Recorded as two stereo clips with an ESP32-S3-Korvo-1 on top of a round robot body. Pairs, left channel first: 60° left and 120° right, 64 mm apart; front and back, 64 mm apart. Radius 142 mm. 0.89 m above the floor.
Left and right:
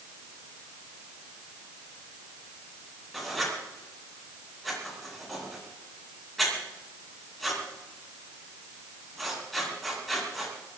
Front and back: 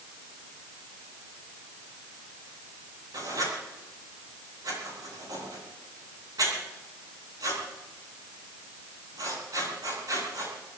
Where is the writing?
150° left, 9.5 m.